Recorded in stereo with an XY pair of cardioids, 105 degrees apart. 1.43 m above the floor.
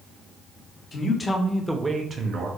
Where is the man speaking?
40° left, 0.8 m; by 2.5 s 60° right, 0.7 m.